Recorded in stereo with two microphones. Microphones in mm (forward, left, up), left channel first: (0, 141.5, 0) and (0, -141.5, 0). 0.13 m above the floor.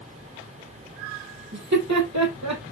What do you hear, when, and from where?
1.5 s laughter: 70° right (ahead or behind), 4 m; by 2.7 s 75° right (ahead or behind), 4.5 m